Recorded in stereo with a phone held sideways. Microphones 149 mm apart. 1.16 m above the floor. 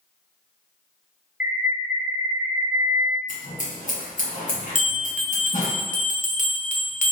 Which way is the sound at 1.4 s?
10° right (ahead or behind).